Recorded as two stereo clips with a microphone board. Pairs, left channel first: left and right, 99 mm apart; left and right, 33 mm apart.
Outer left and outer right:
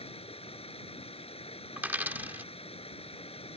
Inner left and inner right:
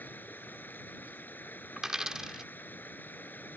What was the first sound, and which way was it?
Running water, 85° left.